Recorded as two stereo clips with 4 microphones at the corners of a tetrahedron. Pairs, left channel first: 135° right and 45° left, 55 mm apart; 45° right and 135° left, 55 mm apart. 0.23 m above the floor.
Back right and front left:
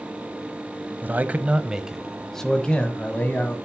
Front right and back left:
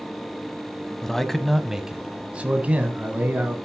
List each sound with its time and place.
1.0 s a man speaking: 30° left, 1.2 m; by 3.6 s 175° left, 1.7 m